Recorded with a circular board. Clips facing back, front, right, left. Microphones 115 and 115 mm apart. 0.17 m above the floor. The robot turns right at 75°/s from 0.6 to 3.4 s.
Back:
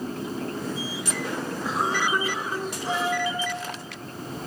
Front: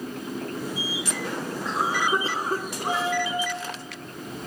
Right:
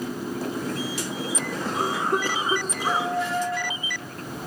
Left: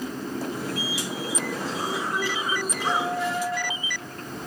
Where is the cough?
100° right, 2.5 m; by 3.1 s 10° left, 2.5 m.